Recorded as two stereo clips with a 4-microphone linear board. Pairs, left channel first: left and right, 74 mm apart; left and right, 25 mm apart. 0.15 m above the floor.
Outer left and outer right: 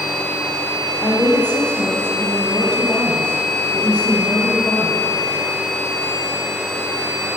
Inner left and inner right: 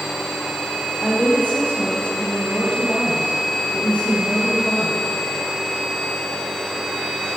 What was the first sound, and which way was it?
A woman speaking, 70° left (ahead or behind).